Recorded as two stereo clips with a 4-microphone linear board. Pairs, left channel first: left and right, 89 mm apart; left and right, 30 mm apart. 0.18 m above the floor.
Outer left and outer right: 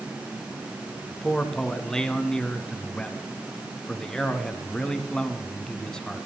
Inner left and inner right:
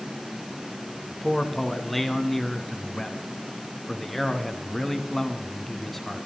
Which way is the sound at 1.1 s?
10° left (ahead or behind).